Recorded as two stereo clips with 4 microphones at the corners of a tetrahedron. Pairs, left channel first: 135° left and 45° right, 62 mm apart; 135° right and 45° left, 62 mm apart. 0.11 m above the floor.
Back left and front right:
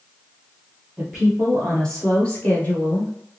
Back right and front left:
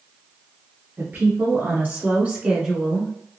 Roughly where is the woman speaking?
Ahead left.